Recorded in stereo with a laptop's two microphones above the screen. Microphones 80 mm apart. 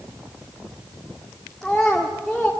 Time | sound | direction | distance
1.6 | a child speaking | 5° left (ahead or behind) | 1.5 m